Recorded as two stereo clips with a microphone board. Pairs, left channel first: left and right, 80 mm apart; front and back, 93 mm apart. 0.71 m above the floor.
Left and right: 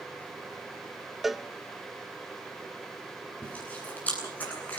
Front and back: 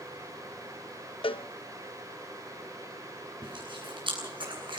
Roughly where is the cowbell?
Ahead.